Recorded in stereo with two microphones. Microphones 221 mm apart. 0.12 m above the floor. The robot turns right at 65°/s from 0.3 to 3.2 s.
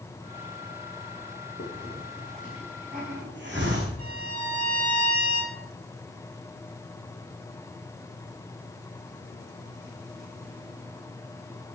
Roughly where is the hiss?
Left.